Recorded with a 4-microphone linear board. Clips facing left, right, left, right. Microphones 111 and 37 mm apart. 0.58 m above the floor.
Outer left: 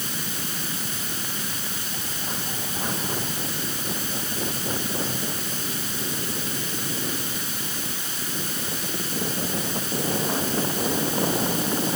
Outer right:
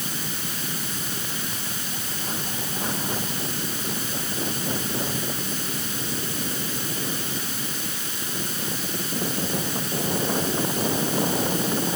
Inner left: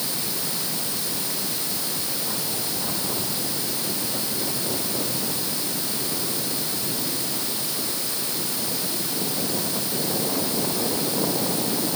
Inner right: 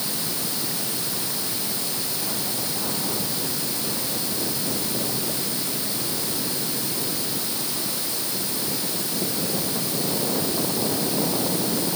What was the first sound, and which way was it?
Only background noise.